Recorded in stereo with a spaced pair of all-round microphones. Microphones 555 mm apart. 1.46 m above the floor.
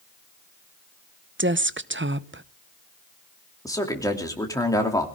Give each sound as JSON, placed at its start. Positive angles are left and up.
{"t": 1.4, "sound": "a woman speaking", "side_deg": -20, "distance_m": 0.7}
{"t": 3.6, "sound": "a man speaking", "side_deg": 5, "distance_m": 2.5}